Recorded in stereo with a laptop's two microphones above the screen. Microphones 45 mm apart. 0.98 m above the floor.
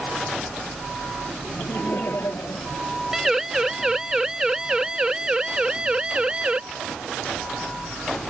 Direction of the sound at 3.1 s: 10° right (ahead or behind).